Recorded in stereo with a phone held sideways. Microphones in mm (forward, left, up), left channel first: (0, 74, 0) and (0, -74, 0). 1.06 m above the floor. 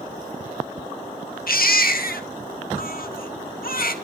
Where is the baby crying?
80° left, 1.2 m.